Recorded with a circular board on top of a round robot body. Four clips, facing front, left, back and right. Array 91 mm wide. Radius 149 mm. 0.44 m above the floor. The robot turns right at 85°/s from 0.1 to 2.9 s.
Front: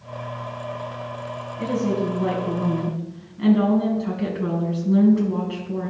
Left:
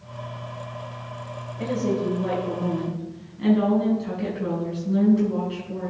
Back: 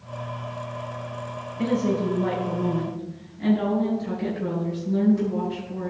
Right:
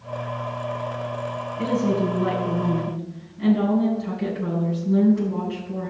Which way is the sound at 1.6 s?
115° right.